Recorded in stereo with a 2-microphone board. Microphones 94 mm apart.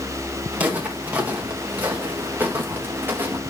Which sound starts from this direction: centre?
Footsteps, at 0.5 s.